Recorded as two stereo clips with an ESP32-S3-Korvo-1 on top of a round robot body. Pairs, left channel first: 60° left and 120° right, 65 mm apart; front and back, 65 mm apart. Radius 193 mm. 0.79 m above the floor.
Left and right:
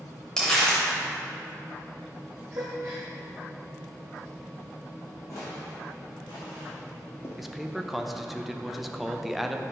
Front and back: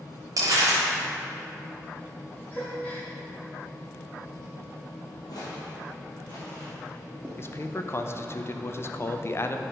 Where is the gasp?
70° right, 0.6 m.